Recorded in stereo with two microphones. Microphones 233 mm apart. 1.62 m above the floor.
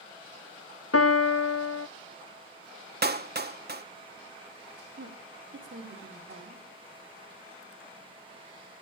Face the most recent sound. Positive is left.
turn(degrees=-55)  # may be behind; listen again after turning